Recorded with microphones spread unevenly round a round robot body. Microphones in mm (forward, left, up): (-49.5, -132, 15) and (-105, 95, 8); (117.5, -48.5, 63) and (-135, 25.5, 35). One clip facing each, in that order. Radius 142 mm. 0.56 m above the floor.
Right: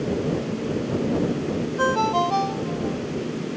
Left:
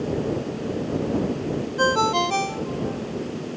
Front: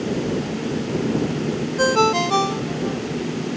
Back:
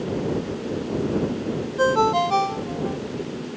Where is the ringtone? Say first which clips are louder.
Left 2 dB, front 1 dB; 40° left.